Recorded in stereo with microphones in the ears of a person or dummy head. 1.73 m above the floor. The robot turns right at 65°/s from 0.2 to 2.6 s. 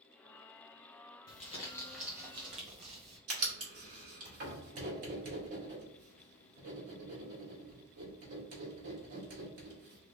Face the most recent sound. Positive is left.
turn(degrees=-50)  # may be behind; listen again after turning